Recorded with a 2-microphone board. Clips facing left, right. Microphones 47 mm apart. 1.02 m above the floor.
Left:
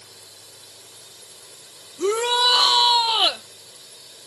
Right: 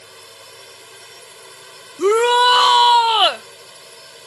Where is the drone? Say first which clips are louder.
Right 7 dB; 70° right (ahead or behind).